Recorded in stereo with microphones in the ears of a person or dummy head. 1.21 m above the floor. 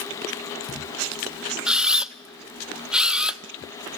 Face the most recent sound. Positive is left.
turn(degrees=-5)  # may be behind; listen again after turning